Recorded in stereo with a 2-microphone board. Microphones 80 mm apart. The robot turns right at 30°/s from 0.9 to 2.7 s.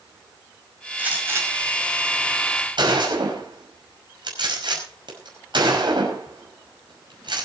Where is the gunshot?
20° right (ahead or behind), 5.5 m; by 7.5 s 70° right (ahead or behind), 5.5 m.